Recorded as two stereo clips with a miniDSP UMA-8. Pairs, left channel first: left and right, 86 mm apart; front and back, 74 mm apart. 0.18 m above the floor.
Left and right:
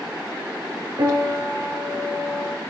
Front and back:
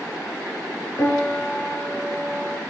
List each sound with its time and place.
1.0 s a piano: 55° right, 0.8 m